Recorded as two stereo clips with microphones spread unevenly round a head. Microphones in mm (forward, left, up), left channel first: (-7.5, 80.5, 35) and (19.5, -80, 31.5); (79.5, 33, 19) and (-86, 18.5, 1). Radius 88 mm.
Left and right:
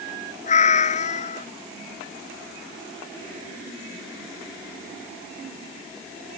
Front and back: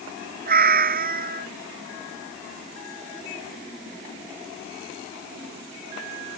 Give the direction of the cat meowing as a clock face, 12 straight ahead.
7 o'clock.